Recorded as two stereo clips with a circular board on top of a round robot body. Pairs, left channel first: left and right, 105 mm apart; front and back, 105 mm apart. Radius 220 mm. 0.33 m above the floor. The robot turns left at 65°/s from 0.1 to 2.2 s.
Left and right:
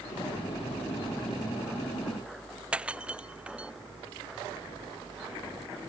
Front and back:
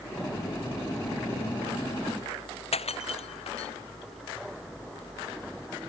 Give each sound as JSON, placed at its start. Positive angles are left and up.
{"t": 2.7, "sound": "breaking glass", "azimuth_deg": -10}